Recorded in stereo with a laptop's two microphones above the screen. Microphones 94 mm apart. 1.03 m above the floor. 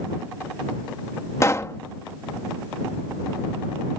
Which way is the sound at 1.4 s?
30° left (ahead or behind).